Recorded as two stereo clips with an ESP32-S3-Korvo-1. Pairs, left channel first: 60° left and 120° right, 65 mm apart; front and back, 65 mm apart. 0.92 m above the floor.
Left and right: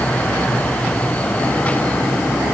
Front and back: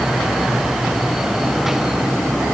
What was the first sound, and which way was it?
Only background noise.